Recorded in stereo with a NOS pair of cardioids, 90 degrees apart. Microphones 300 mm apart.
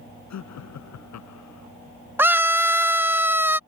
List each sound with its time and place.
0.3 s laughter: 65° left
2.2 s a scream: 5° right